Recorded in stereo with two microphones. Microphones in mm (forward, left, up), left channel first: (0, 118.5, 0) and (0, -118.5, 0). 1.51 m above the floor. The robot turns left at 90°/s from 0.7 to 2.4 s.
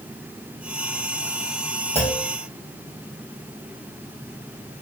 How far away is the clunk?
About 1.4 m.